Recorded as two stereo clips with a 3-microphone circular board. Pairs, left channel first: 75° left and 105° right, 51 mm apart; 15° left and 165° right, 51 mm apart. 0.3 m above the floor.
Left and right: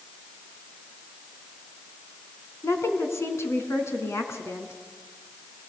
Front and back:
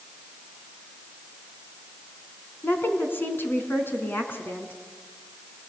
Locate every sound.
2.6 s a woman speaking: 60° left, 3.5 m